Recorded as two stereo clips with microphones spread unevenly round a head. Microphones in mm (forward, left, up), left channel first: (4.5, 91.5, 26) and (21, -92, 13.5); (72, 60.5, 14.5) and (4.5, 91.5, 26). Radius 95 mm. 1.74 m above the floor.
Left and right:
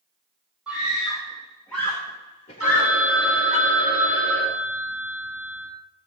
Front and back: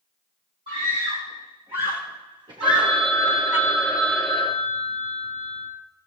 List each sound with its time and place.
0.7 s a scream: 170° right, 3 m; by 3.6 s 90° left, 1.2 m
2.6 s a phone ringing: 110° right, 9 m